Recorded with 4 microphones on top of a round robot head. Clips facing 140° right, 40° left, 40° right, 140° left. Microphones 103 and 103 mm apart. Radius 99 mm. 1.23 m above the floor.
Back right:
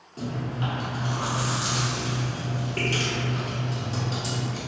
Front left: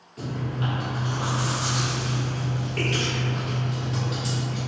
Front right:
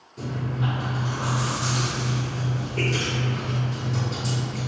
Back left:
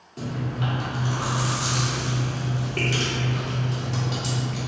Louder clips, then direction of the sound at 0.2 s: Even, even; 165° left.